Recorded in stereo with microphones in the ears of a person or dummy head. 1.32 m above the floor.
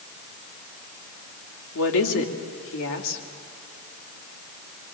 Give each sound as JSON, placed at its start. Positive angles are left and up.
{"t": 1.8, "sound": "a woman speaking", "side_deg": 70, "distance_m": 3.0}